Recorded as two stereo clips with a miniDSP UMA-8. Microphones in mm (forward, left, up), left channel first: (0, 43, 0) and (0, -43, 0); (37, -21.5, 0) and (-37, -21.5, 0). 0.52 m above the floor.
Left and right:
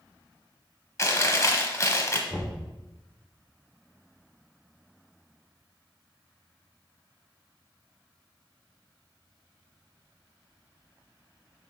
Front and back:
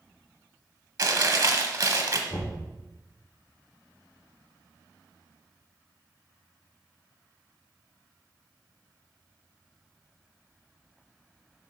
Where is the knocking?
20° left, 1.0 m.